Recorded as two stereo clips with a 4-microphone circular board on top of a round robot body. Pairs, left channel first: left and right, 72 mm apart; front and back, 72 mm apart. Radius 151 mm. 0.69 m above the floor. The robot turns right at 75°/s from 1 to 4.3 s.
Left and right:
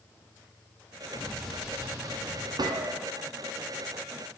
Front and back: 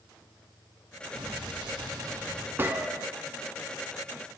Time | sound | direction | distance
1.1 | an explosion | 155° left | 1.3 m
2.6 | a gunshot | 115° right | 0.6 m